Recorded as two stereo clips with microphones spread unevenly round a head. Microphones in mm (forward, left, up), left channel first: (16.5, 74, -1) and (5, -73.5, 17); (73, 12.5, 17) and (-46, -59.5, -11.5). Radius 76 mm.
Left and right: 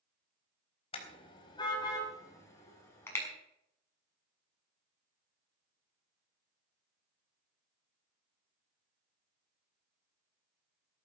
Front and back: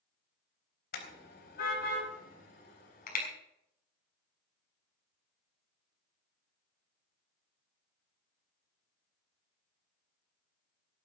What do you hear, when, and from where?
0.9 s a car horn: 30° left, 4 m; by 3.2 s 10° left, 6.5 m